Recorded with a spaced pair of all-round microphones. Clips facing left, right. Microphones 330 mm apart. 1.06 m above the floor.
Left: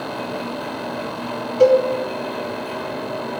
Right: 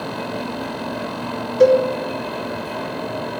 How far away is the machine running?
About 2.5 m.